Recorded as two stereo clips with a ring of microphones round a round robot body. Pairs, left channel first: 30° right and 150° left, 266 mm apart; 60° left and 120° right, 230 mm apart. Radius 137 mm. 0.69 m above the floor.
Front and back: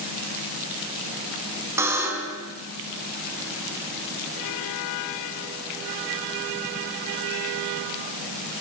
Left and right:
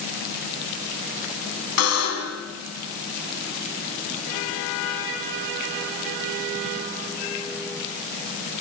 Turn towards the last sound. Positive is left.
turn(degrees=70)